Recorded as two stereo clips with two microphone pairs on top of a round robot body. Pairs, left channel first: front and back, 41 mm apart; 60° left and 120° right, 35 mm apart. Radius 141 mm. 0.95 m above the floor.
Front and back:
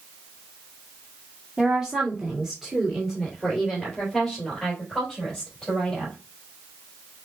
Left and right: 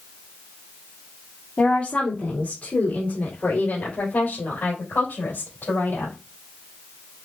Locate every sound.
1.6 s a woman speaking: 95° left, 2 m; by 6.1 s 80° left, 5 m